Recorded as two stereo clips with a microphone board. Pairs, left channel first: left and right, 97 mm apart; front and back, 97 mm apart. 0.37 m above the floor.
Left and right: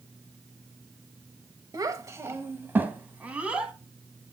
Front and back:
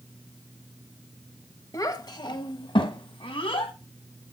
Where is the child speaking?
45° right, 1.0 m; by 3.7 s 10° right, 1.9 m.